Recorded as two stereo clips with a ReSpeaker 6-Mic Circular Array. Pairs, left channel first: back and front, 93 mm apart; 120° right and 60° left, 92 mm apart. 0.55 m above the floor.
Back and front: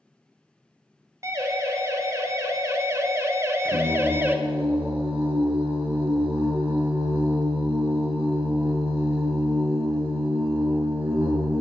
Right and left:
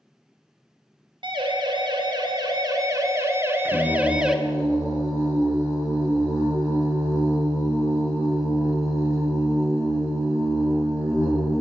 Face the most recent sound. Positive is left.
turn(degrees=0)